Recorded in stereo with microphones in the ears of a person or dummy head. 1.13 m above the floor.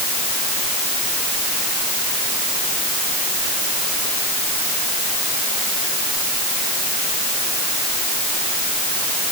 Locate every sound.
Only background noise.